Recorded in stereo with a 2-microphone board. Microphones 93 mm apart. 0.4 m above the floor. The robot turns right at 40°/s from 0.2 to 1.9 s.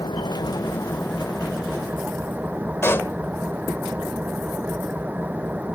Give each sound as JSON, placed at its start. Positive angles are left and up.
{"t": 0.0, "sound": "an engine running", "azimuth_deg": 130}
{"t": 2.8, "sound": "a pop", "side_deg": 25}